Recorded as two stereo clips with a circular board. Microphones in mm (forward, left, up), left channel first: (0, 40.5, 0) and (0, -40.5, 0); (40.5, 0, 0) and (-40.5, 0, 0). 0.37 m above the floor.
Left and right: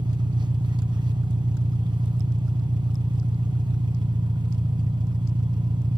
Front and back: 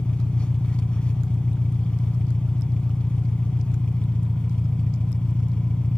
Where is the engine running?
75° right, 1.1 m.